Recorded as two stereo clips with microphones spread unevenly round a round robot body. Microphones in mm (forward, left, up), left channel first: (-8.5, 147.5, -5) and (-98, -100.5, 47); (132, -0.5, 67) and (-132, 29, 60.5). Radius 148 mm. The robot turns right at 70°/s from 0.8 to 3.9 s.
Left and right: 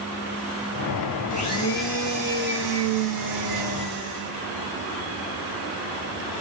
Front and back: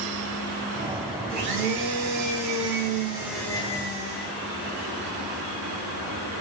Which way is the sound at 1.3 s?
120° left.